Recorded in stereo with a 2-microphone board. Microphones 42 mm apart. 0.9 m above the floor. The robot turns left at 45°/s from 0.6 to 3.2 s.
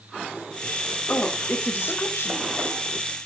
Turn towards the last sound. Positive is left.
turn(degrees=50)